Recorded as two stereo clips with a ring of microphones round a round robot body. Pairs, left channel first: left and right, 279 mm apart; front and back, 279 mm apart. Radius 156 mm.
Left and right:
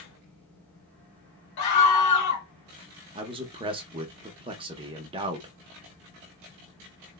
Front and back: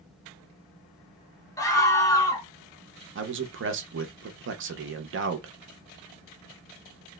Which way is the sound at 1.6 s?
80° left.